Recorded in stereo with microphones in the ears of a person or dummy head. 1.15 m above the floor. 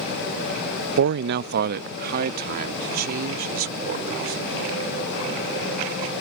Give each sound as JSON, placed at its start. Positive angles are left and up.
{"t": 1.0, "sound": "a man speaking", "side_deg": -65}